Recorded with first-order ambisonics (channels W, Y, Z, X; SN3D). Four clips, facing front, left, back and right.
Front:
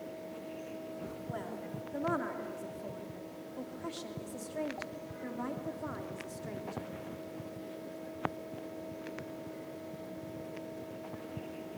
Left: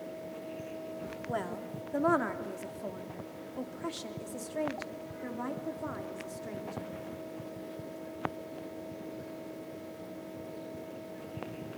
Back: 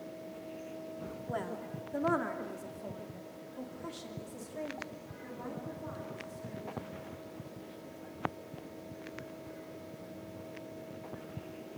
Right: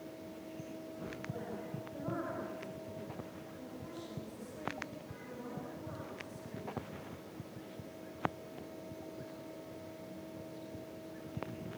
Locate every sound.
1.3 s a woman speaking: 110° left, 3 m; by 6.9 s 45° left, 3.5 m